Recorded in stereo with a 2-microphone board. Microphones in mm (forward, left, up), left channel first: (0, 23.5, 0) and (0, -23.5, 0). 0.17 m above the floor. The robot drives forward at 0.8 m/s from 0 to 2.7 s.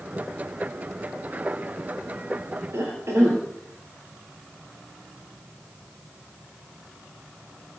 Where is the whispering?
No whispering in this recording.